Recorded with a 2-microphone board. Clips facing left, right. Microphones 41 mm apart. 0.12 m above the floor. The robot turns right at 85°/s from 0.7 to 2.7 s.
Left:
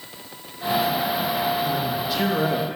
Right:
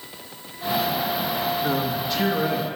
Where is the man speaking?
40° right, 4.5 m; by 2.7 s 50° left, 4.5 m.